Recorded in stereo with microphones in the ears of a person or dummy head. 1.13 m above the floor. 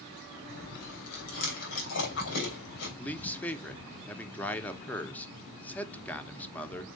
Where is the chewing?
60° left (ahead or behind), 2.5 m.